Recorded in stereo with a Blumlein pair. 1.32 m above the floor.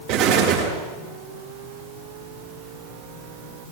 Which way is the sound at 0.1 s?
45° right.